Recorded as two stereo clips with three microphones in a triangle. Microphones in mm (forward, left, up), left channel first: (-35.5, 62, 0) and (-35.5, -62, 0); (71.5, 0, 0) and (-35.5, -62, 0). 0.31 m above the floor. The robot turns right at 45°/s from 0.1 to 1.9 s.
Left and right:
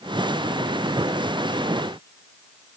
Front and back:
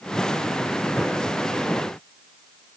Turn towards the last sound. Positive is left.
No sound to turn to.